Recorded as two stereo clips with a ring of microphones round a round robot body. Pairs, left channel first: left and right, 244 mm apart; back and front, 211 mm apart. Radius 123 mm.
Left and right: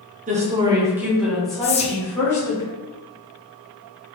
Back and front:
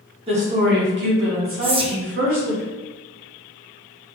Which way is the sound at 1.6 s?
45° left.